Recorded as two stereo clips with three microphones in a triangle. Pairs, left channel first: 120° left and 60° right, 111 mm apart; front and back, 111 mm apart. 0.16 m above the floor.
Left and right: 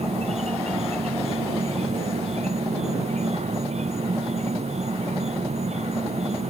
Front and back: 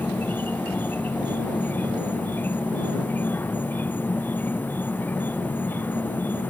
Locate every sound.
0.0 s an insect: 75° right